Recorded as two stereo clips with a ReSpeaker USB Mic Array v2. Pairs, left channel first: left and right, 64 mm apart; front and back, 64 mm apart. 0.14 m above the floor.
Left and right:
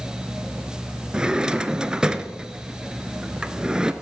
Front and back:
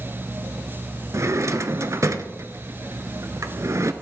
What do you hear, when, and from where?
1.1 s a drawer: 160° right, 0.5 m